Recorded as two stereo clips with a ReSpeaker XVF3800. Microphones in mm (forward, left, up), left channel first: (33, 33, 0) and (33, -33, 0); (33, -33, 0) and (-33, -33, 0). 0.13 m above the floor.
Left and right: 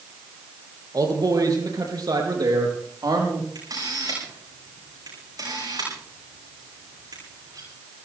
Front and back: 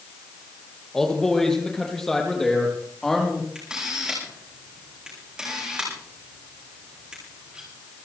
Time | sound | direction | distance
0.9 | a man speaking | 85° right | 3.5 m
3.5 | a camera shutter | 100° right | 8.5 m